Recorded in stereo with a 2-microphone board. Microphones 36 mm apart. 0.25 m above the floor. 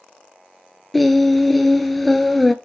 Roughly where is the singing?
Centre.